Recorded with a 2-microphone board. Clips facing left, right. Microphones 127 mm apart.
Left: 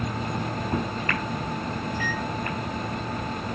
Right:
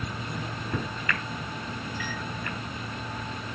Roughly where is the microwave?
Left.